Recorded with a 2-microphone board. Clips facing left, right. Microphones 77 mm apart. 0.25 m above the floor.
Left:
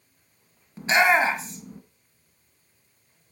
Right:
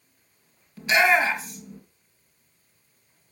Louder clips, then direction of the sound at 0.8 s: Left 1 dB; 30° left (ahead or behind).